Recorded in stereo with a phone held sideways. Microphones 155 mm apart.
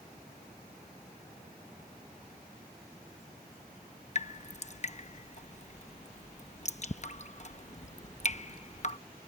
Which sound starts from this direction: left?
Dripping, at 4.2 s.